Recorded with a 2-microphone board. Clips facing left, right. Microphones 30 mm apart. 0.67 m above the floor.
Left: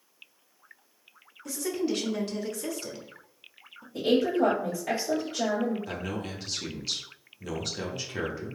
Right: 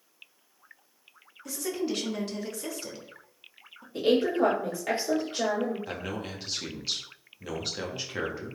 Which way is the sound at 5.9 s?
10° right (ahead or behind).